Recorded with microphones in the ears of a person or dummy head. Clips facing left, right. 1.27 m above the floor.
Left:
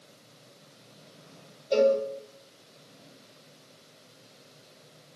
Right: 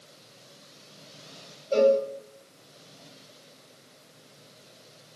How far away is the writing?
I don't hear writing.